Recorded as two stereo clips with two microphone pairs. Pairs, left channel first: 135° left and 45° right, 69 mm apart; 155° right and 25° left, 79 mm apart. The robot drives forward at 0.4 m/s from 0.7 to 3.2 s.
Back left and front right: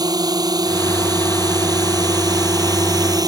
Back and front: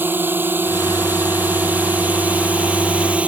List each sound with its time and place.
0.0 s a drone: 40° right; by 3.3 s 50° right